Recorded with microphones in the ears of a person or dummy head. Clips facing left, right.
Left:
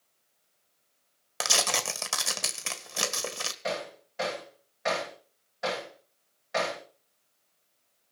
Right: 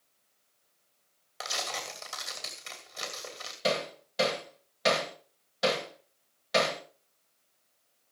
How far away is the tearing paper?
About 1.8 m.